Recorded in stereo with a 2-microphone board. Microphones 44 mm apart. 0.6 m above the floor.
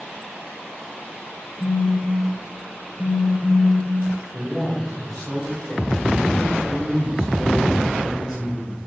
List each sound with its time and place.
1.6 s a phone buzzing: 35° left (ahead or behind), 2 m
4.3 s a man speaking: centre (ahead or behind), 2.5 m